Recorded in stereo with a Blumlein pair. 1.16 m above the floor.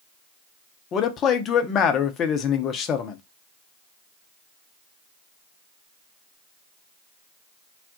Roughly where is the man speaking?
Ahead left.